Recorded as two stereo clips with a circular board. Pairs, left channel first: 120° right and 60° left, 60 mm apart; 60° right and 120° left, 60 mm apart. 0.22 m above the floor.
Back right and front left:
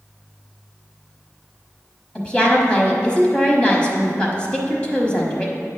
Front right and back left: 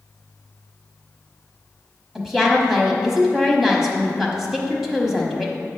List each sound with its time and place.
2.1 s a woman speaking: 165° right, 1.2 m